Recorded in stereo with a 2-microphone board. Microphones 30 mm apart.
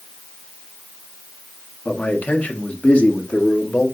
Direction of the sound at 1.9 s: 80° left.